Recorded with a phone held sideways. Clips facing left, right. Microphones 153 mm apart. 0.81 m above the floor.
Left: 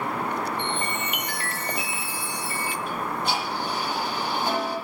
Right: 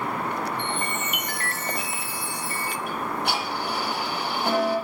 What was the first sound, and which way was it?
A chime, 45° right (ahead or behind).